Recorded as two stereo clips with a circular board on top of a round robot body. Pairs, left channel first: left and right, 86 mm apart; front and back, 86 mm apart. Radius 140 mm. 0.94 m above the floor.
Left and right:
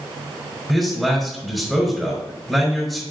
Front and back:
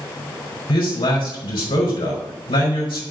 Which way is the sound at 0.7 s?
Straight ahead.